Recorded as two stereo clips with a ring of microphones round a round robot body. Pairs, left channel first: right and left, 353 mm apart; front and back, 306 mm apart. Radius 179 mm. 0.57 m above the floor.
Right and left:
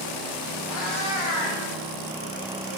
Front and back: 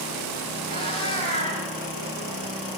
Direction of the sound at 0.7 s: 110° right.